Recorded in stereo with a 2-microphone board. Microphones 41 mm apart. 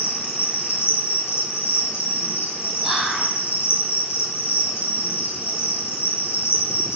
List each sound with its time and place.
0.0 s an insect: 80° left, 2.0 m
2.8 s whispering: centre (ahead or behind), 1.5 m